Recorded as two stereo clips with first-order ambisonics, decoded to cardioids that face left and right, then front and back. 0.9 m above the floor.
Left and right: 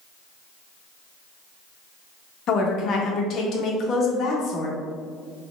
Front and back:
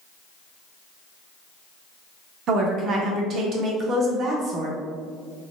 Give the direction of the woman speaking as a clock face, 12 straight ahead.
8 o'clock.